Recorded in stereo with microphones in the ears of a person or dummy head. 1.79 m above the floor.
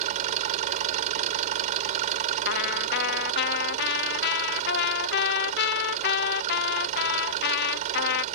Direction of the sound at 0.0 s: 45° right (ahead or behind).